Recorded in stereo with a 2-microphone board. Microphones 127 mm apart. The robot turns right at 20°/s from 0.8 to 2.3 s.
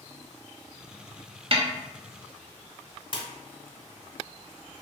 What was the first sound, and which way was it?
A snare drum, 50° right (ahead or behind).